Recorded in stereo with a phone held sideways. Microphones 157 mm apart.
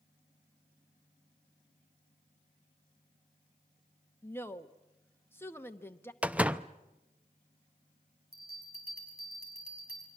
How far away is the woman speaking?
About 0.9 m.